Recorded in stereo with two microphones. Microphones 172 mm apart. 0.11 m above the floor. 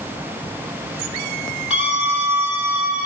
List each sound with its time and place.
1.7 s a scream: 5° right (ahead or behind), 2.5 m; by 3.1 s 10° right (ahead or behind), 3.5 m